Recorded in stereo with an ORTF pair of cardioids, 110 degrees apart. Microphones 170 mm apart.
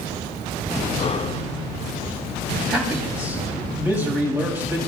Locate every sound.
1.0 s breathing: 35° left, 1.0 m
2.7 s a man speaking: 10° right, 8.5 m